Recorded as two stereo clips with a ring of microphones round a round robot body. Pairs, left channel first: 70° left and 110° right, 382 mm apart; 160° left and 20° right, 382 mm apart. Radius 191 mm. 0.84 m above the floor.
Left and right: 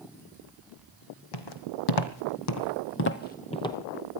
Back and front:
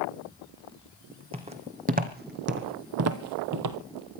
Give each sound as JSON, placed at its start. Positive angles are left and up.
{"t": 1.3, "sound": "footsteps", "azimuth_deg": 50, "distance_m": 1.8}